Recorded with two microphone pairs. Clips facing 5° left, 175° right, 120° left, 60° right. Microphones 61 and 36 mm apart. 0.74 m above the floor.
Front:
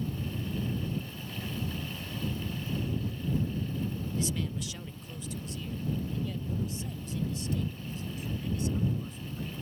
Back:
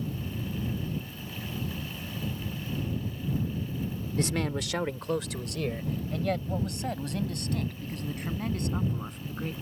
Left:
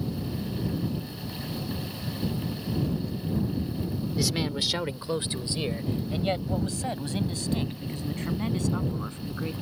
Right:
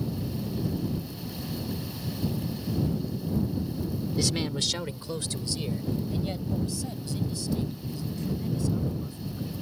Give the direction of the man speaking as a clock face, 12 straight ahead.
5 o'clock.